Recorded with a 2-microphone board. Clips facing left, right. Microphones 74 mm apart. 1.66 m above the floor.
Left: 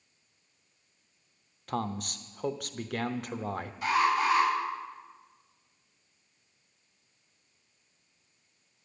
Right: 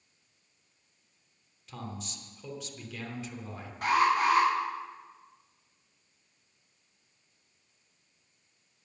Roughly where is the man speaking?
Left.